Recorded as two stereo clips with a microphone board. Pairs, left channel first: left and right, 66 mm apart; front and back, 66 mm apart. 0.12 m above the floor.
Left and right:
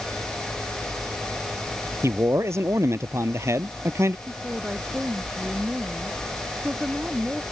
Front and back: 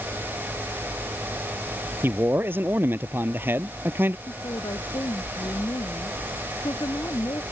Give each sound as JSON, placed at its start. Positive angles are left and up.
{"t": 2.0, "sound": "a man speaking", "azimuth_deg": -130}
{"t": 4.3, "sound": "a woman speaking", "azimuth_deg": -20}